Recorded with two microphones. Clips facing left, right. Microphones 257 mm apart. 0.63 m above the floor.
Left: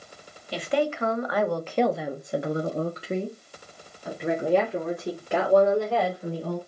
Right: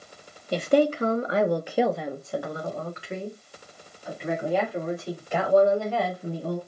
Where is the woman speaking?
50° right (ahead or behind), 0.9 m; by 6.6 s 75° left (ahead or behind), 2.5 m.